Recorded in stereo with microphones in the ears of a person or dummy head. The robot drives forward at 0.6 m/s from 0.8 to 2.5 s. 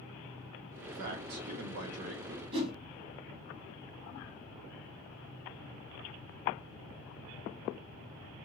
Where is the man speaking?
50° right (ahead or behind), 0.7 m; by 2.4 s 40° right (ahead or behind), 0.9 m.